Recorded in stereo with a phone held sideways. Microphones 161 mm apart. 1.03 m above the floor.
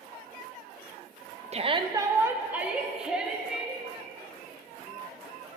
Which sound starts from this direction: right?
A shout, at 1.5 s.